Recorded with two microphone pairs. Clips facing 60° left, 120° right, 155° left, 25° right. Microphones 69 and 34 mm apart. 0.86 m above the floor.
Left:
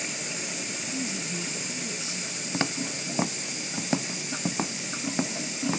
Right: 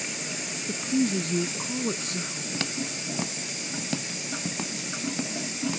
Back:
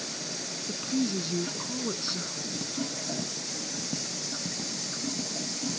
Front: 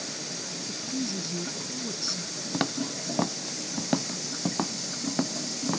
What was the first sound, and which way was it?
A woman speaking, 150° right.